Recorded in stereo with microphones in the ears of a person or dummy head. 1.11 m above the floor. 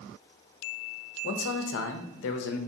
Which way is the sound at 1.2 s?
65° left (ahead or behind).